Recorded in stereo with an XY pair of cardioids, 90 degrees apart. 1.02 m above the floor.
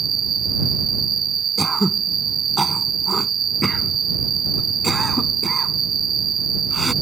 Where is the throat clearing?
10° right.